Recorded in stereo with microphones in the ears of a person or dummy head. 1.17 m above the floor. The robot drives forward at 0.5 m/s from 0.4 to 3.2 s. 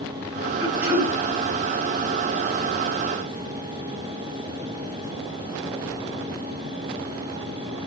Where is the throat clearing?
50° right (ahead or behind), 2.5 m; by 1.1 s 55° right (ahead or behind), 2.5 m.